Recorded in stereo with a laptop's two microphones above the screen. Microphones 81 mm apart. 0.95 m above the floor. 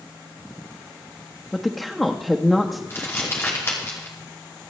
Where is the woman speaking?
5° left (ahead or behind), 1.0 m.